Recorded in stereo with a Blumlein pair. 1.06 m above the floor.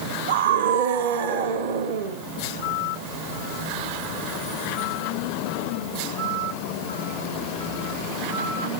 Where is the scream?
60° right, 3 m.